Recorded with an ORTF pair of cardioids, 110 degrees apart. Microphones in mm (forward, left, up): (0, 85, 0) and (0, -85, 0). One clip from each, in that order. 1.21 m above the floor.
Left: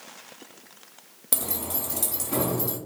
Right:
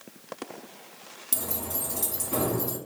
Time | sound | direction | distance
1.3 | keys jangling | 15° left | 1.6 m